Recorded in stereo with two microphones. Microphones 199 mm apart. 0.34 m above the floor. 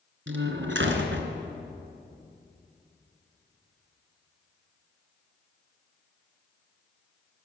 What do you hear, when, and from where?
0.3 s a door slam: 75° right (ahead or behind), 3 m